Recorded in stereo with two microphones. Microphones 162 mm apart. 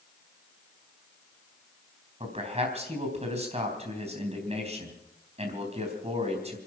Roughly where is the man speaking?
Right.